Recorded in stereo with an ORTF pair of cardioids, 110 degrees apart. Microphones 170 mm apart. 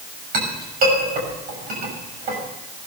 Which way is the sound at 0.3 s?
60° right.